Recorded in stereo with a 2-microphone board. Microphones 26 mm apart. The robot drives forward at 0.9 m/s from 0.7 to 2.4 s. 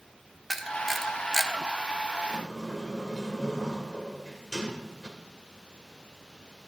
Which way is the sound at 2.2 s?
25° left (ahead or behind).